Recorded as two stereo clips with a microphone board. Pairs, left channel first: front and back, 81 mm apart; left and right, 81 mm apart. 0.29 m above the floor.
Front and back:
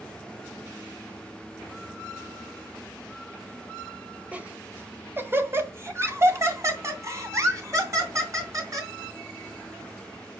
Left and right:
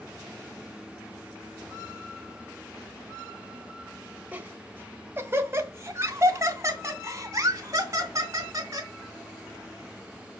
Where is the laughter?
135° right, 1.6 m.